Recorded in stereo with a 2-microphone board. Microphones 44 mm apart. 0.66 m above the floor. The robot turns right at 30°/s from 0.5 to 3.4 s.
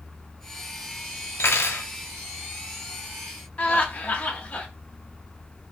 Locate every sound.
1.4 s cutlery clinking: 70° left (ahead or behind), 1.1 m; by 1.9 s 80° left, 1.1 m
3.6 s laughter: 30° left (ahead or behind), 0.9 m